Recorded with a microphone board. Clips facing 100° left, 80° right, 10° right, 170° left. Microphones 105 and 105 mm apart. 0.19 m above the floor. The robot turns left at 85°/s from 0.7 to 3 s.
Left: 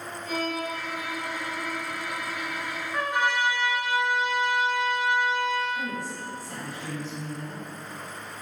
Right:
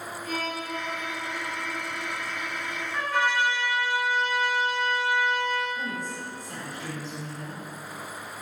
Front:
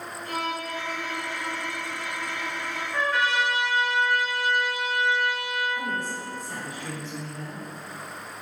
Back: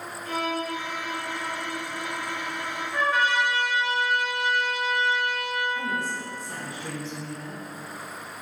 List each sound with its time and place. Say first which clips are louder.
0.2 s a violin: left 3 dB, back 3 dB; 100° right, 1.3 m; by 2.8 s 80° left, 1.3 m
2.9 s a trumpet: even, back 1 dB; 135° left, 1.3 m; by 5.6 s 125° left, 1.3 m
5.7 s a woman speaking: left 1 dB, back 1 dB; 175° right, 1.5 m